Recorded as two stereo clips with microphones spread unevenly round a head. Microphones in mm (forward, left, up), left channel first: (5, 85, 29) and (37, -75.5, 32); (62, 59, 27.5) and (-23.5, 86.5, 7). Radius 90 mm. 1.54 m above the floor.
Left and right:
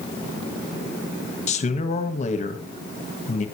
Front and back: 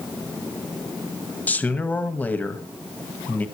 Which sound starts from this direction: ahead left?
A man speaking, at 1.5 s.